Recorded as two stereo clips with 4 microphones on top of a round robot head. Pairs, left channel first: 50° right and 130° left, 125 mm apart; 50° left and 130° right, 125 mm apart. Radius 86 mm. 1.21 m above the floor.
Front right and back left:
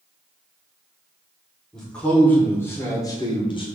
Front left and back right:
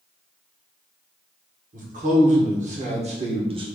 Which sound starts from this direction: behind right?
A man speaking, at 1.7 s.